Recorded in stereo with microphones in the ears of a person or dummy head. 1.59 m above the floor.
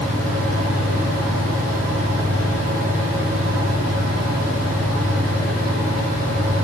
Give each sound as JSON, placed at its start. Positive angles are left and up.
{"t": 0.0, "sound": "a fan", "side_deg": -55, "distance_m": 3.5}